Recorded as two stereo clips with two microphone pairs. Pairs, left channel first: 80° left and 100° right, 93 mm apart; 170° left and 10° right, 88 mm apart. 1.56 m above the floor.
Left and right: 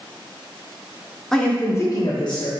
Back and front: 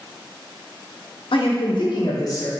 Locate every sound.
1.3 s a man speaking: 165° left, 0.7 m; by 2.5 s 110° left, 1.1 m